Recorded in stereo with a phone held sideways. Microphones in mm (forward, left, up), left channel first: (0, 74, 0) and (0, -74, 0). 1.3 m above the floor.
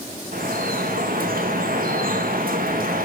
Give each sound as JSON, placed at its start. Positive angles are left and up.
{"t": 0.3, "sound": "dripping", "side_deg": -75, "distance_m": 2.0}